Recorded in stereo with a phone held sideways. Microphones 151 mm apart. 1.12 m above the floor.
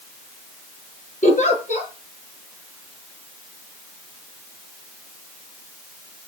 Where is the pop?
No pop in this recording.